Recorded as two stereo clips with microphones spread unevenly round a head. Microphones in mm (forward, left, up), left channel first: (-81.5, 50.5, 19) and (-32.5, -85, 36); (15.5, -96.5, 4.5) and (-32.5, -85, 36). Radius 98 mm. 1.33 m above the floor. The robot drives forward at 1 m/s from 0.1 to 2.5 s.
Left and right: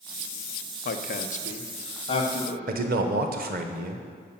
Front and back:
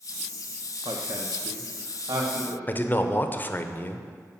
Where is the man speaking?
40° right, 1.0 m.